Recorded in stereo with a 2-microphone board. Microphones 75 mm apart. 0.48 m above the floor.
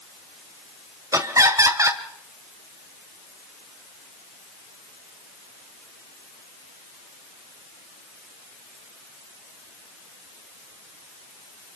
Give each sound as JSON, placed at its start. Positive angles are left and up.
{"t": 1.1, "sound": "laughter", "side_deg": -45, "distance_m": 2.0}